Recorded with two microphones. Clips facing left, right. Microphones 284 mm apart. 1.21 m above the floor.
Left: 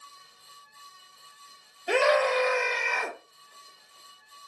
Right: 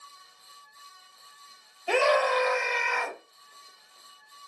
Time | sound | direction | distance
1.9 | a scream | 15° left (ahead or behind) | 1.0 m